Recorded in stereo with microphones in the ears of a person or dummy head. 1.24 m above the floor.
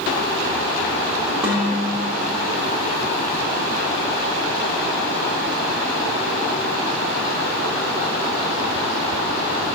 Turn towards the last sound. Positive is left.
turn(degrees=-10)  # may be behind; listen again after turning